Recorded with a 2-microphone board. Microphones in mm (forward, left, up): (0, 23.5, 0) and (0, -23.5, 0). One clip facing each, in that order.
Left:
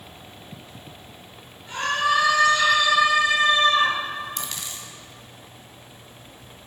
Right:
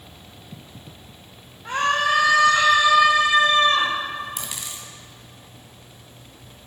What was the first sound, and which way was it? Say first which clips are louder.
A scream: right 2 dB; 80° right.